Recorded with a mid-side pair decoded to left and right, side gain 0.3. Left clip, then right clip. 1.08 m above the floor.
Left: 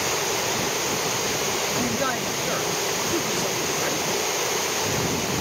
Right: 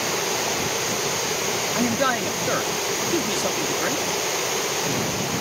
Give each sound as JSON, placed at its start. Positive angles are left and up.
{"t": 1.8, "sound": "a man speaking", "azimuth_deg": -45}